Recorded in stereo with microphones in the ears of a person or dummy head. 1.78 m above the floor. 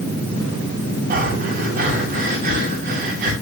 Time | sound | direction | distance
1.1 | breathing | 50° right (ahead or behind) | 6 m